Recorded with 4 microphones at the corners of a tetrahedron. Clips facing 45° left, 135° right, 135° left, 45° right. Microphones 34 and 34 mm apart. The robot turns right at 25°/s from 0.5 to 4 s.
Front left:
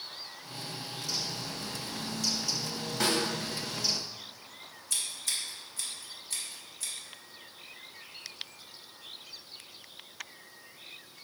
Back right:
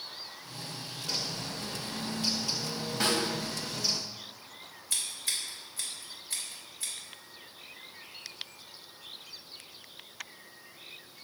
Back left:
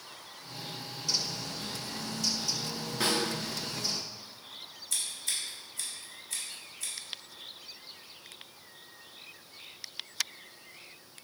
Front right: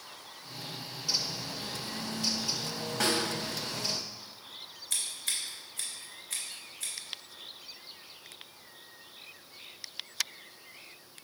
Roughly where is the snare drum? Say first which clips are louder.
Even, even; ahead right.